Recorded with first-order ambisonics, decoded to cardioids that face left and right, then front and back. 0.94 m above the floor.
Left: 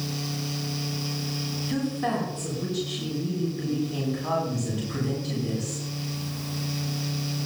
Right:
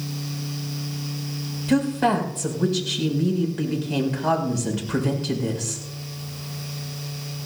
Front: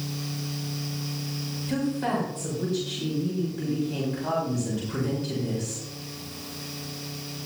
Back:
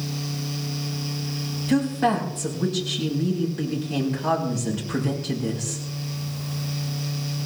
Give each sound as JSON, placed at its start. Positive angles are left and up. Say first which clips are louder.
{"t": 1.7, "sound": "a woman speaking", "louder": "right 8 dB, back 6 dB", "azimuth_deg": -110, "distance_m": 7.0}